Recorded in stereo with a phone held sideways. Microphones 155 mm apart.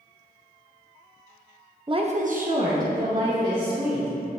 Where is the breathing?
I don't hear breathing.